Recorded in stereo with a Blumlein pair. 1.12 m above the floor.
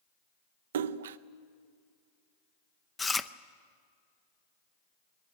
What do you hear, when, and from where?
0.7 s a splash: 60° right, 0.5 m
3.0 s chewing: 10° left, 0.6 m